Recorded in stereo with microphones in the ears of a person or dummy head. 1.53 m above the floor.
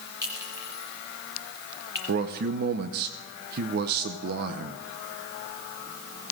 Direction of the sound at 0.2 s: 15° right (ahead or behind).